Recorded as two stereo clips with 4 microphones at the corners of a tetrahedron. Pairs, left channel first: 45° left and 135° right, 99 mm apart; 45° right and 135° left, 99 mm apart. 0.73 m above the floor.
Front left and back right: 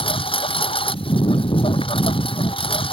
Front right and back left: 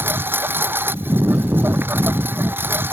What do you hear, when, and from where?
0.0 s a lawn mower: 65° left